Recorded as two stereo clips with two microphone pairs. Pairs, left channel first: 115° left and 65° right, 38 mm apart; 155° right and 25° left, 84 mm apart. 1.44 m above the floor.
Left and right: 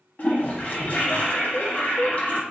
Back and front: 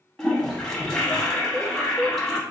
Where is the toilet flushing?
120° left, 1.0 m.